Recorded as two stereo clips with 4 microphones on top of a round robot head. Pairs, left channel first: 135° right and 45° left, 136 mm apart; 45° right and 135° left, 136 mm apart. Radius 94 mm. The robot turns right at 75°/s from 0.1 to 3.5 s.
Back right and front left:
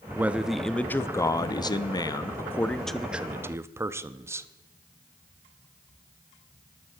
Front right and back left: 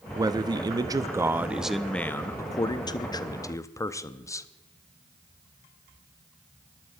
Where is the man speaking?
105° left, 0.7 m; by 4.5 s 5° right, 0.7 m.